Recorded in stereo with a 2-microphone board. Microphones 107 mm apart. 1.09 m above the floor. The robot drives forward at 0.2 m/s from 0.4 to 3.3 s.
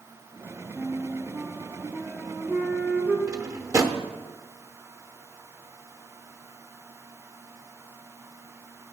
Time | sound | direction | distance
0.8 | a flute | 15° right (ahead or behind) | 0.8 m
3.3 | a drawer | 30° right (ahead or behind) | 0.8 m